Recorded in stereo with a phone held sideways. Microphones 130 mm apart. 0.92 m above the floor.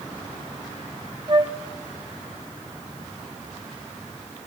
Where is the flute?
35° right (ahead or behind), 1.1 m.